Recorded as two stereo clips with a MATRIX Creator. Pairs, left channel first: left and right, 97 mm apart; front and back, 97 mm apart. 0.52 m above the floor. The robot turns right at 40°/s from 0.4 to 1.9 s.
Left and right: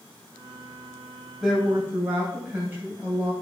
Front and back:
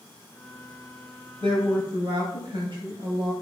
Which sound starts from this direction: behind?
A woman speaking, at 1.4 s.